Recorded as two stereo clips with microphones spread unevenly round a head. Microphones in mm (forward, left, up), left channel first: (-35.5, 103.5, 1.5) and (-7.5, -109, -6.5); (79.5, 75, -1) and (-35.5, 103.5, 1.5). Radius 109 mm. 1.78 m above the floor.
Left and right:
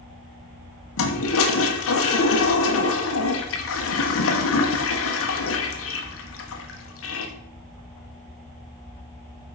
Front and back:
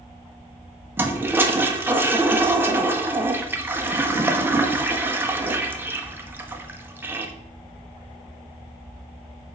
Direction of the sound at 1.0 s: 95° left.